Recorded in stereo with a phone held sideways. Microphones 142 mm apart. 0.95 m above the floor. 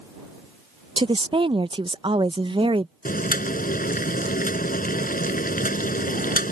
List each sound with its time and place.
1.0 s a woman speaking: 35° right (ahead or behind)
3.0 s boiling: 75° left (ahead or behind)